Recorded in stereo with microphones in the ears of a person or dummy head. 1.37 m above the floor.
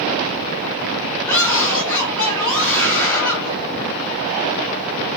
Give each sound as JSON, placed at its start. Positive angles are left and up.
{"t": 1.2, "sound": "a scream", "side_deg": 20, "distance_m": 5.5}